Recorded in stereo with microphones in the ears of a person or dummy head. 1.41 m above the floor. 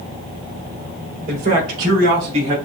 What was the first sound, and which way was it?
A man speaking, 55° right (ahead or behind).